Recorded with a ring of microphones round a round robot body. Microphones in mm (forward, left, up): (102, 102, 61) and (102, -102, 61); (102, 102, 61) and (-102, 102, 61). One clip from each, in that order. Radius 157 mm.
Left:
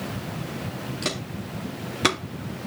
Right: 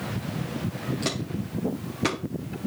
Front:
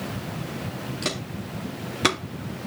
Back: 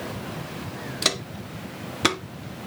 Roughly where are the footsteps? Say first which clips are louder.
Left 3 dB, back 6 dB; behind.